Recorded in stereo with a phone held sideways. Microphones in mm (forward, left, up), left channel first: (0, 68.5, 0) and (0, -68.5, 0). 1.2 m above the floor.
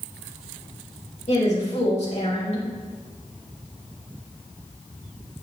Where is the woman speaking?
55° left (ahead or behind), 4 m.